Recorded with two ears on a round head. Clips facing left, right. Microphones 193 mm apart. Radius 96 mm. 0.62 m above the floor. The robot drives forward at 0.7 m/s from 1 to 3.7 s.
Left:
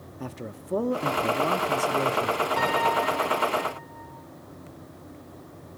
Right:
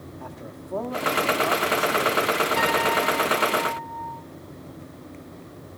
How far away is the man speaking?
About 0.8 m.